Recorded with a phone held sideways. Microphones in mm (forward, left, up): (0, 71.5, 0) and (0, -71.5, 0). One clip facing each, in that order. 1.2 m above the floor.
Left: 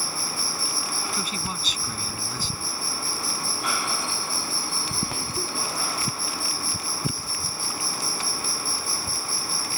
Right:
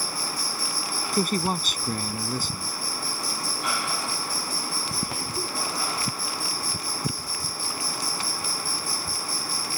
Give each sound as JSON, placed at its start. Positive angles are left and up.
{"t": 0.0, "sound": "an insect", "side_deg": -40}
{"t": 1.1, "sound": "a man speaking", "side_deg": -50}